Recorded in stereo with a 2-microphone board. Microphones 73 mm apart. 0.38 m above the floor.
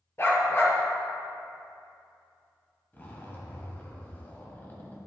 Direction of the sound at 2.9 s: 25° left (ahead or behind).